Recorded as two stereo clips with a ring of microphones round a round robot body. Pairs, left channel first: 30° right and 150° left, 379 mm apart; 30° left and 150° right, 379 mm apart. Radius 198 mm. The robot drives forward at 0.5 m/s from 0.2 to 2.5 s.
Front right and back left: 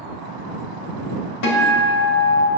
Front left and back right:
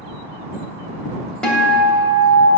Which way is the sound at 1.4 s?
60° right.